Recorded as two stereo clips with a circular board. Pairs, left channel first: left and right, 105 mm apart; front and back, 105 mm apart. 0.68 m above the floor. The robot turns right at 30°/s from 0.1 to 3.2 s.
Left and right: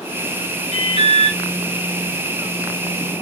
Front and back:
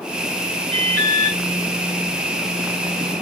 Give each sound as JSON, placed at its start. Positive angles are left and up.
{"t": 0.7, "sound": "an alarm", "azimuth_deg": -85, "distance_m": 2.5}